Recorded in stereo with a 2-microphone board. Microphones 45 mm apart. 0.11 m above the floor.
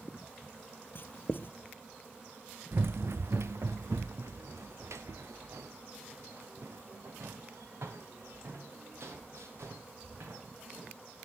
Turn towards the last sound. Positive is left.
turn(degrees=-75)  # may be behind; listen again after turning